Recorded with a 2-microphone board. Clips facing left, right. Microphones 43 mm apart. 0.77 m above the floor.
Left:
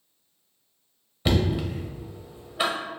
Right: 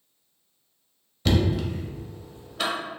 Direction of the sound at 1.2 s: 15° left (ahead or behind).